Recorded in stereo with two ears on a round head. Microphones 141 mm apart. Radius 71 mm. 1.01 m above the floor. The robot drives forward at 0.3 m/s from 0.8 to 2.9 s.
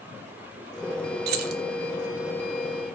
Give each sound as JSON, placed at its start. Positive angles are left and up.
{"t": 1.3, "sound": "keys jangling", "side_deg": -70, "distance_m": 0.5}